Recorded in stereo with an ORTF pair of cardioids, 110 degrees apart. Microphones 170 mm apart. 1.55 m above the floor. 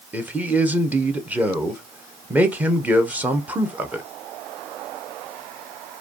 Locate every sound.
0.1 s a man speaking: 10° right, 0.8 m